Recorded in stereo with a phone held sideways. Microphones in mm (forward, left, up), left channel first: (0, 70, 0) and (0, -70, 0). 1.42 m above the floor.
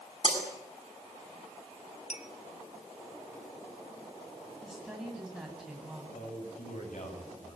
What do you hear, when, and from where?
0.2 s breaking glass: 50° left (ahead or behind), 8 m
2.1 s a clink: 55° left (ahead or behind), 2 m
4.6 s a woman speaking: 5° right (ahead or behind), 9 m
6.1 s a man speaking: 70° left (ahead or behind), 9.5 m